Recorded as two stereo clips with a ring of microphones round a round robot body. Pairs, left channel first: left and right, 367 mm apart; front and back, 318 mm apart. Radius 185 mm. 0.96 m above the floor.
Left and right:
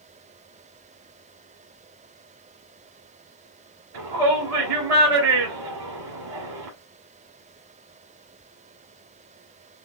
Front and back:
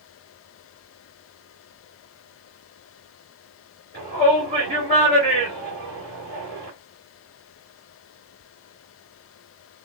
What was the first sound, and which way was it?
A shout, 110° right.